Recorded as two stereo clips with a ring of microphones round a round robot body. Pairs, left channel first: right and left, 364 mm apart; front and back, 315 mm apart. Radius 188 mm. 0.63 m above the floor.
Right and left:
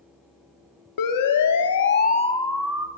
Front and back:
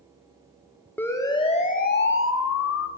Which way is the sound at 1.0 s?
85° right.